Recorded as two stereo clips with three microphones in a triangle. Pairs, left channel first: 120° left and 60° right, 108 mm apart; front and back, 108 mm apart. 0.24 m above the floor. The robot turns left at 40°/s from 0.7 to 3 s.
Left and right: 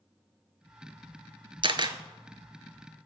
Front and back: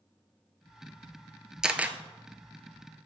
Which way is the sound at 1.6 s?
95° right.